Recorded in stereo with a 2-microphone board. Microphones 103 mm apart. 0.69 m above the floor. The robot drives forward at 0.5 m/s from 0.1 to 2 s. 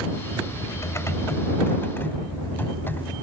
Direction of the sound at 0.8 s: 35° left (ahead or behind).